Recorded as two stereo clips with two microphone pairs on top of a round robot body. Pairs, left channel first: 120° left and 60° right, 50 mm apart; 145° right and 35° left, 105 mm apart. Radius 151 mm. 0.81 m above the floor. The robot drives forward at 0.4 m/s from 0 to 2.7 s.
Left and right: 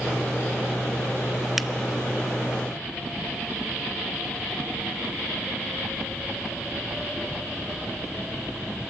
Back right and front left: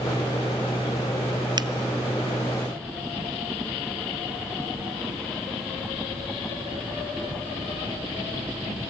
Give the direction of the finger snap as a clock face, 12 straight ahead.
11 o'clock.